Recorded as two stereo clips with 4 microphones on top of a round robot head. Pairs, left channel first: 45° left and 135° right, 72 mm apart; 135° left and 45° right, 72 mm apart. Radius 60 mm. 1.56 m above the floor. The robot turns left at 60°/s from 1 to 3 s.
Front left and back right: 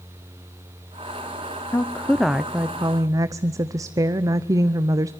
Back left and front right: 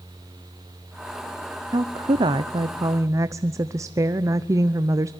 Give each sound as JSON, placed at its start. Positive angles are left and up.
{"t": 1.7, "sound": "a woman speaking", "azimuth_deg": -15, "distance_m": 0.8}